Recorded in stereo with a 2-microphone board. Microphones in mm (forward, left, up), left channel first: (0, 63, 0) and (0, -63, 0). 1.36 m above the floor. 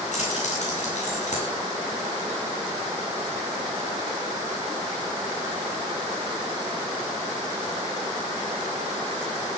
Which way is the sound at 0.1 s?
60° left (ahead or behind).